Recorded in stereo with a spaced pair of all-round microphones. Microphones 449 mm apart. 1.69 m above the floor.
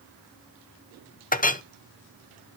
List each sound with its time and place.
1.3 s a clink: 20° left (ahead or behind), 0.6 m